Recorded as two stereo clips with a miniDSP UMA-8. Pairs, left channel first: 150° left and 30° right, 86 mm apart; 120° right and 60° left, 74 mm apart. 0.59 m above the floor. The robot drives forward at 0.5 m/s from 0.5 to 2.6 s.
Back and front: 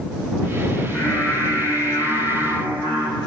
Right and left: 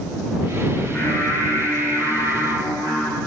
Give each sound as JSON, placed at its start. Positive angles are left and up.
{"t": 0.8, "sound": "singing", "azimuth_deg": -160, "distance_m": 0.7}